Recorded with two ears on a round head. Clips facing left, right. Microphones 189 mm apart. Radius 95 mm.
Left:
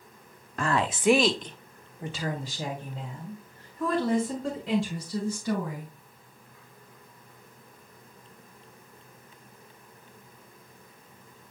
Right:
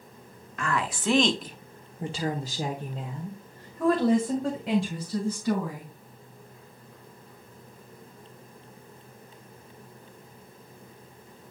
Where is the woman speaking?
30° left (ahead or behind), 1.0 m; by 5.9 s 50° right (ahead or behind), 4 m.